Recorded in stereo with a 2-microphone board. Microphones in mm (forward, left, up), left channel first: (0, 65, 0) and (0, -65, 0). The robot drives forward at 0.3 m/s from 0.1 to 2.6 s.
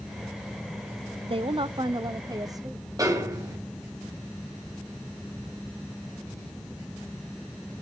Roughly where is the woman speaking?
Right.